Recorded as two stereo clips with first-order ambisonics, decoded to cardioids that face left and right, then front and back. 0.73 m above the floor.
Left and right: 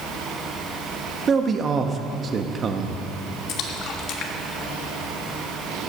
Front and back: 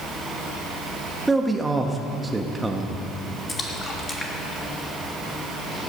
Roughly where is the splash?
Left.